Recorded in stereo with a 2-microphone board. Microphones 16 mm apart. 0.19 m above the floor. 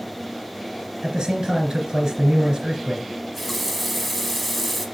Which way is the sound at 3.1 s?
Centre (ahead or behind).